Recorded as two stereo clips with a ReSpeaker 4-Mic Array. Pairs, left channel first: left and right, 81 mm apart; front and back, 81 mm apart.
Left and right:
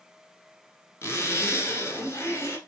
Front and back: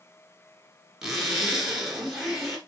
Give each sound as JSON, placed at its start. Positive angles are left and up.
{"t": 1.0, "sound": "a zipper", "azimuth_deg": 100, "distance_m": 1.2}